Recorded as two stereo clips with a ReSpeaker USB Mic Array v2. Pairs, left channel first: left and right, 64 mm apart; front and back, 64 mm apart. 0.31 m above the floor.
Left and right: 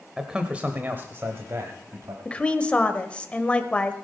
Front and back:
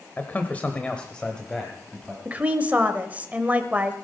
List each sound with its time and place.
0.2 s a man speaking: 15° right, 1.1 m; by 2.1 s 85° right, 1.6 m
2.2 s a woman speaking: 140° left, 1.0 m